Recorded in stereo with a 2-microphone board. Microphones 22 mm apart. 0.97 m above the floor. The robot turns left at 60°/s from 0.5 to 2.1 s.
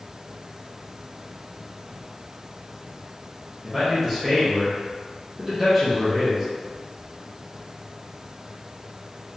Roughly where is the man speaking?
Centre.